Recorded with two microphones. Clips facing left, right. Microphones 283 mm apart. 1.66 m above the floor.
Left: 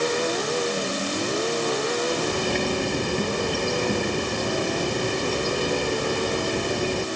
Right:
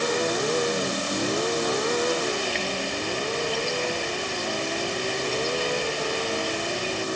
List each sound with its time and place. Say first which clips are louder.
2.1 s a bird: left 2 dB; 55° left (ahead or behind)